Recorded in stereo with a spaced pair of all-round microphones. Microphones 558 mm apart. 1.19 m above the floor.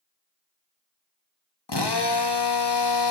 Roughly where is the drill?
Left.